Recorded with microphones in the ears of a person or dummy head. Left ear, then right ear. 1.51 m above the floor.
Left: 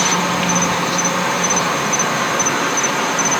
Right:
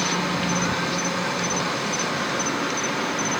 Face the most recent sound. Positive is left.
turn(degrees=30)  # may be behind; listen again after turning